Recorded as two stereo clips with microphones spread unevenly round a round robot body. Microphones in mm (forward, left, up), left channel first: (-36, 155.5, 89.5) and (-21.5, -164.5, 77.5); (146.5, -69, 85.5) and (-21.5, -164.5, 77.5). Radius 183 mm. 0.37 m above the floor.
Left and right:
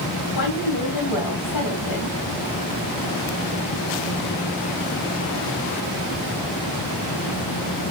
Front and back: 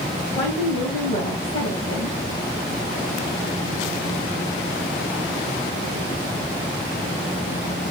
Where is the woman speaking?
80° left, 3.5 m.